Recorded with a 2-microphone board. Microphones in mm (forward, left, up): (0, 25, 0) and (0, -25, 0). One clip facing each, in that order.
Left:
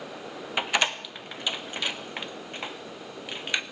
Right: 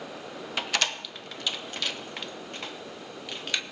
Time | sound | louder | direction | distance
0.6 | a door slam | left 3 dB | 20° left (ahead or behind) | 0.8 m